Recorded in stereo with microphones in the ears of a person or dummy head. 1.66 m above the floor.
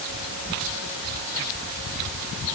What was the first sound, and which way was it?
Only background noise.